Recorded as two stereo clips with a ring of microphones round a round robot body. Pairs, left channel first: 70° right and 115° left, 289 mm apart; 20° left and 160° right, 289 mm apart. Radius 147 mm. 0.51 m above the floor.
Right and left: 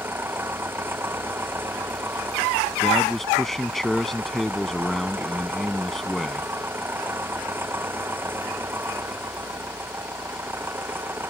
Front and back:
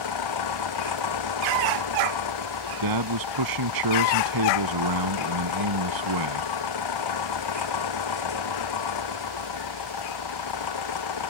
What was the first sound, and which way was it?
An engine running, 30° left.